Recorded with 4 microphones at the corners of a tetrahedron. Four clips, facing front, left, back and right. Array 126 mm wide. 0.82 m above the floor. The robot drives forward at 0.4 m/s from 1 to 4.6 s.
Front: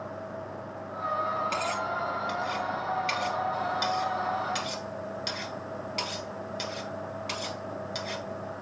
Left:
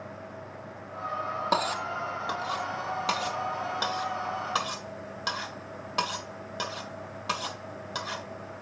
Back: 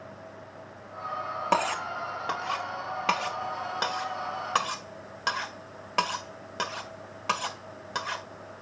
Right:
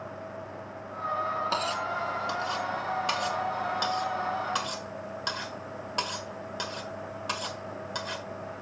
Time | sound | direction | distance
1.5 | cutlery clinking | 155° left | 0.8 m